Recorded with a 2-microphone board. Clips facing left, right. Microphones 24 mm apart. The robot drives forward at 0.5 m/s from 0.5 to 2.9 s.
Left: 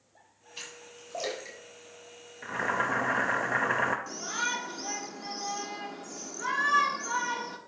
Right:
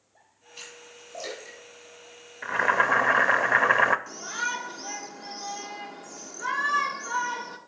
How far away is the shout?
About 1.2 m.